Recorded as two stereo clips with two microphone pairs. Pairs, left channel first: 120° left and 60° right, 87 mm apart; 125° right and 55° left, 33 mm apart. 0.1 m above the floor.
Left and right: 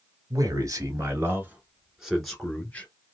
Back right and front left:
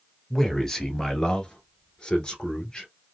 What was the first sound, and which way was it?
A man speaking, 50° right.